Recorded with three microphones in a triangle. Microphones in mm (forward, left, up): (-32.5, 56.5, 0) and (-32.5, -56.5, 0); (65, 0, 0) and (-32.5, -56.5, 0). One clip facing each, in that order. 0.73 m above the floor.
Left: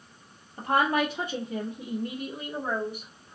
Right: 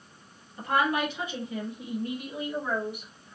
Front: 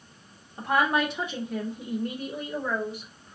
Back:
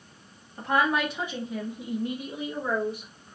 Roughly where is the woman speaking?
Left.